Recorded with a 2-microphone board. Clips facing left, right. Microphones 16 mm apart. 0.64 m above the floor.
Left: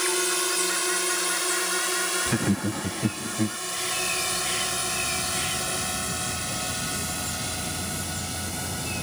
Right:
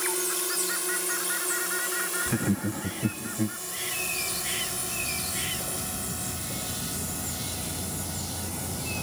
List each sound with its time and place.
0.0 s a drone: 35° left (ahead or behind)
2.3 s laughter: 10° left (ahead or behind)